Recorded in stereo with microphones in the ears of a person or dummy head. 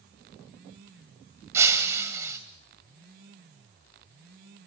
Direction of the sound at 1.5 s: 10° right (ahead or behind).